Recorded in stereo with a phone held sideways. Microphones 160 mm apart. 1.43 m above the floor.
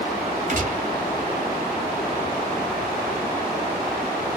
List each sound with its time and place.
0.5 s a gunshot: 50° right (ahead or behind), 1.1 m